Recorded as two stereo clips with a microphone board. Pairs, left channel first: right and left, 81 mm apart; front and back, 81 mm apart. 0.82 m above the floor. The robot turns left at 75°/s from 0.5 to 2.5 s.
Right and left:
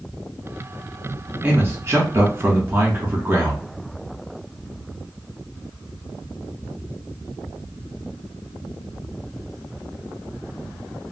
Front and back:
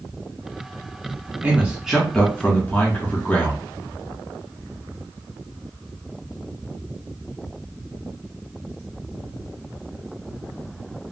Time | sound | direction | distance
1.4 | a man speaking | 135° left | 1.2 m